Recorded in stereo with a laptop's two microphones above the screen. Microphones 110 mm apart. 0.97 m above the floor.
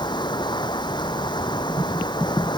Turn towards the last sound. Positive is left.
turn(degrees=45)  # may be behind; listen again after turning